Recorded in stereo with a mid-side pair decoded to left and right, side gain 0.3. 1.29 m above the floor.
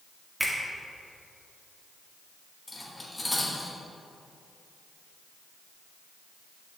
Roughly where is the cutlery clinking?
Ahead.